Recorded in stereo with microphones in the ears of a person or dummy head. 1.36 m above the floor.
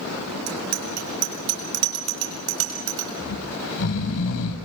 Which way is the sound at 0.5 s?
80° right.